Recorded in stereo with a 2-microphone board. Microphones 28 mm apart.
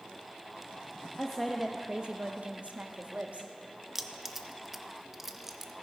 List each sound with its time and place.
1.2 s a woman speaking: 5° left (ahead or behind), 0.8 m; by 3.5 s 55° right (ahead or behind), 1.5 m
4.0 s keys jangling: 5° right (ahead or behind), 0.6 m